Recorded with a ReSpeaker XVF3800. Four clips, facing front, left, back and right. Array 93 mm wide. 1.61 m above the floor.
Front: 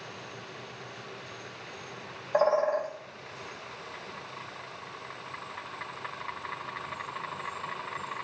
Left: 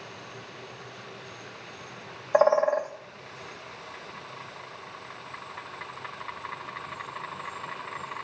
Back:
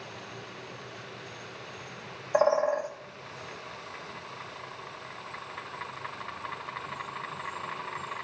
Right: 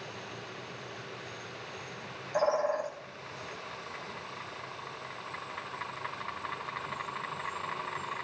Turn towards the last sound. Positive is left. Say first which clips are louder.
# left 7 dB, back 1 dB
turn(degrees=105)